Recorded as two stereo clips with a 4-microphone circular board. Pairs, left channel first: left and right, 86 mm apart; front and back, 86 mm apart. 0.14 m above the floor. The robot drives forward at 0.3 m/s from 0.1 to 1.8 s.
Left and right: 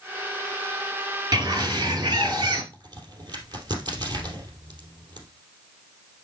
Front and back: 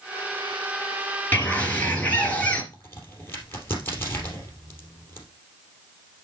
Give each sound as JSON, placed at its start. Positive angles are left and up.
{"t": 1.3, "sound": "a bird", "azimuth_deg": -65, "distance_m": 2.5}
{"t": 2.7, "sound": "a crack", "azimuth_deg": -60, "distance_m": 3.0}